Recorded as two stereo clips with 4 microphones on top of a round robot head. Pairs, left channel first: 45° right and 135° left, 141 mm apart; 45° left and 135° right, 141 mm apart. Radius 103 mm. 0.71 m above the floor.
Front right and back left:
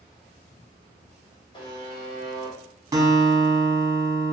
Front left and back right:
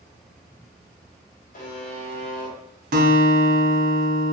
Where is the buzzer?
15° left, 1.0 m.